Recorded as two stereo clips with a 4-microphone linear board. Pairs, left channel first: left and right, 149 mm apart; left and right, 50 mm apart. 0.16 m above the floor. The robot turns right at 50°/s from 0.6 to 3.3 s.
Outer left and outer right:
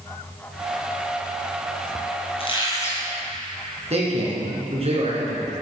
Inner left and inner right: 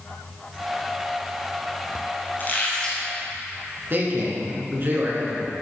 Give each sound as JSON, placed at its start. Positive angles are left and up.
{"t": 2.4, "sound": "a squeak", "azimuth_deg": 135, "distance_m": 1.9}
{"t": 3.9, "sound": "a man speaking", "side_deg": -45, "distance_m": 2.0}